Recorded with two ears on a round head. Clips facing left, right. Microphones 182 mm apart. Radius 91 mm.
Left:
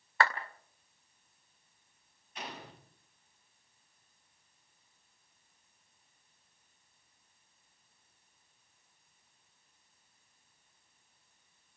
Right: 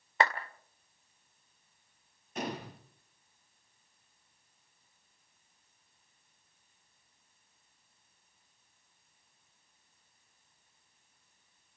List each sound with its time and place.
0.2 s a clap: 20° right (ahead or behind), 2 m
2.4 s a gunshot: 40° right (ahead or behind), 3.5 m